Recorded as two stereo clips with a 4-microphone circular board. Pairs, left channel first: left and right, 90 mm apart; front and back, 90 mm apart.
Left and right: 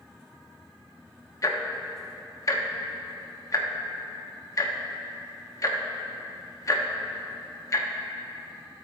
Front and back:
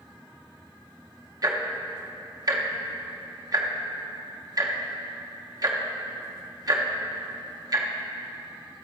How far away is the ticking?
About 0.7 m.